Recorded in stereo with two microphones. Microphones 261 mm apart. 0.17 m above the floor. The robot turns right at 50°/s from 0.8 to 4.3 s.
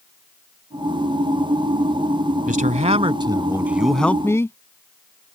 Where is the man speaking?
75° right; by 4.6 s 20° left.